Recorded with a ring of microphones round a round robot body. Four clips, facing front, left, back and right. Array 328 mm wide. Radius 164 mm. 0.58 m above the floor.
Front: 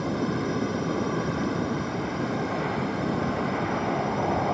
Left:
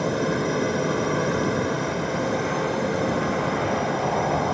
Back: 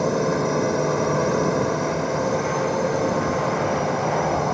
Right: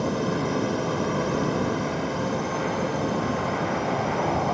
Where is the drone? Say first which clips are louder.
Left 2 dB, back 6 dB; 165° left.